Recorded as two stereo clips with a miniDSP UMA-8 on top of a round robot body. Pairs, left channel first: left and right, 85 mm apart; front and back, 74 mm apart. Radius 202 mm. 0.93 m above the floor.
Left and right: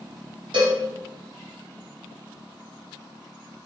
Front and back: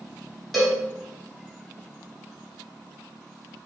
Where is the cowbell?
90° right, 1.2 m.